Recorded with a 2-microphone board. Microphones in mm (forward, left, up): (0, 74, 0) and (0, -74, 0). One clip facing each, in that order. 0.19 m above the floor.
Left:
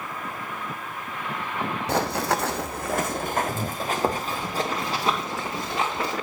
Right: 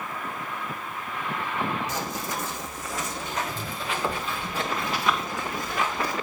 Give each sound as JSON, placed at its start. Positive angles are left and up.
{"t": 1.9, "sound": "running footsteps", "side_deg": 70, "distance_m": 0.7}